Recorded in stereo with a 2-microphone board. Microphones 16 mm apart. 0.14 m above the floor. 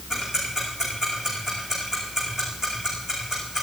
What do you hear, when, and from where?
0.1 s ticking: 25° right (ahead or behind), 9 m